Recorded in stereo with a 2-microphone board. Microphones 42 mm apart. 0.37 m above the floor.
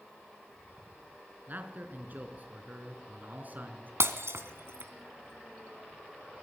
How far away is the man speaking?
About 4 m.